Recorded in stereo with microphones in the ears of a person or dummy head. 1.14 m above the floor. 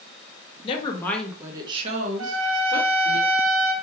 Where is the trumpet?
70° right (ahead or behind), 0.6 m.